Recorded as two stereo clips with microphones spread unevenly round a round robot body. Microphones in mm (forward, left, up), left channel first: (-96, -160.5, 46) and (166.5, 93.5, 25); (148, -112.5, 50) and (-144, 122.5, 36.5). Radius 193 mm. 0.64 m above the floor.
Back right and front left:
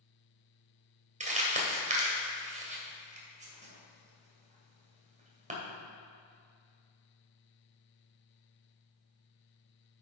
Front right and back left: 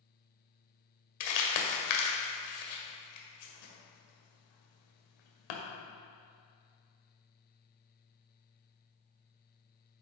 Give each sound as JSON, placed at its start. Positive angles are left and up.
{"t": 1.2, "sound": "crumpling", "azimuth_deg": -25, "distance_m": 1.6}